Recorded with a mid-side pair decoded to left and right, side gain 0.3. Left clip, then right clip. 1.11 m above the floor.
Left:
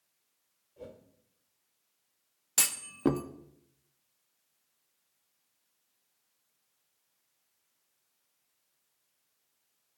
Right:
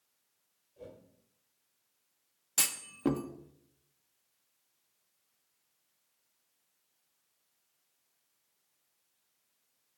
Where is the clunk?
40° left, 0.6 m.